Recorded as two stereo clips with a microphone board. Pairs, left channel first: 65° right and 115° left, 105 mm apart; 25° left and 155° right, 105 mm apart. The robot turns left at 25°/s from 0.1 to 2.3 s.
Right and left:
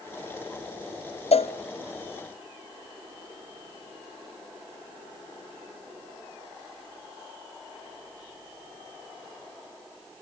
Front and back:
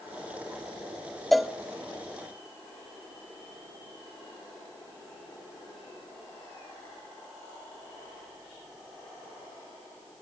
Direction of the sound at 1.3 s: 65° right.